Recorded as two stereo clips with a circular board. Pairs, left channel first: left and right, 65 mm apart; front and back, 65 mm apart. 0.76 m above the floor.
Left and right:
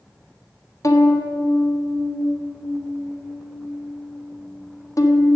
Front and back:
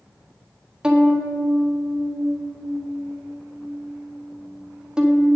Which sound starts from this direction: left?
A violin, at 0.8 s.